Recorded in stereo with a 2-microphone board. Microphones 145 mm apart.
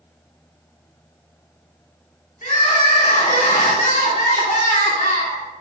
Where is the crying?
65° left (ahead or behind), 2.5 m.